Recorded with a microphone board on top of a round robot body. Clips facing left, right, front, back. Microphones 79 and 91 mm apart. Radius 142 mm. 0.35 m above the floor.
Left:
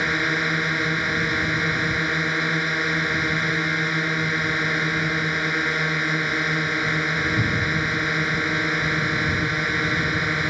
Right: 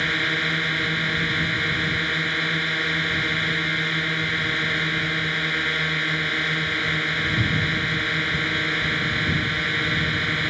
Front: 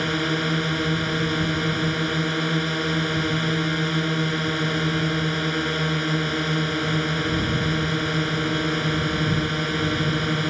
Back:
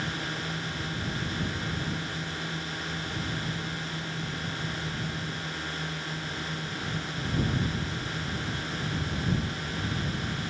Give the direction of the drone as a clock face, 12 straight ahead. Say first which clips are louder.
Left 2 dB, front 10 dB; 11 o'clock.